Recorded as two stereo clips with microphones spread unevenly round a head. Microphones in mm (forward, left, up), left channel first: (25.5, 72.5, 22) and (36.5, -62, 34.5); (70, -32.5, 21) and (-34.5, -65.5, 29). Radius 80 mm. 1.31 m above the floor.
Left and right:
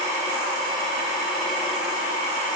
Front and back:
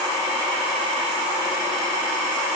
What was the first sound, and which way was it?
Only background noise.